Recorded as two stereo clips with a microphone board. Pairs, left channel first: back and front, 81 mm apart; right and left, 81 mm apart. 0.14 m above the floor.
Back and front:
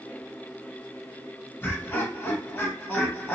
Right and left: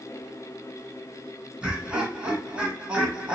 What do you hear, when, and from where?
1.6 s laughter: 155° left, 1.2 m